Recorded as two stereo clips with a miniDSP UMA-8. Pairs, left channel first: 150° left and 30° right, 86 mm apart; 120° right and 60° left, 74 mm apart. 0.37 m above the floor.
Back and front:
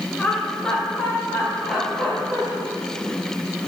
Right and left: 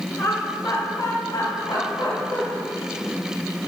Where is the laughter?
125° right, 1.7 m; by 2.4 s 110° right, 3.5 m.